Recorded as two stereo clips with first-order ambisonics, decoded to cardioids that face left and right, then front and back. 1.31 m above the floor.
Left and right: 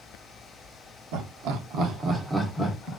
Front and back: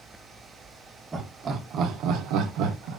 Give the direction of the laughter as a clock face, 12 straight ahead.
3 o'clock.